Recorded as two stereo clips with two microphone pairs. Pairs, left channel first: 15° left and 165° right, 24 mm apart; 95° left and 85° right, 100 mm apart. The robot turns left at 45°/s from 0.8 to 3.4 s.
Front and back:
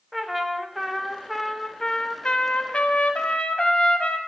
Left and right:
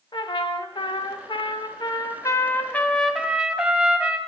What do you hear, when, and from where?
0.1 s a trumpet: 115° left, 0.6 m; by 4.2 s 5° right, 0.6 m